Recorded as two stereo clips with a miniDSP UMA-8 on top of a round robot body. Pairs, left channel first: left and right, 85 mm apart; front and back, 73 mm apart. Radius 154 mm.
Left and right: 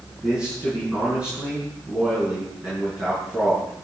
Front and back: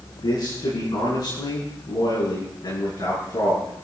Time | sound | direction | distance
0.2 | a man speaking | 15° right | 7.5 m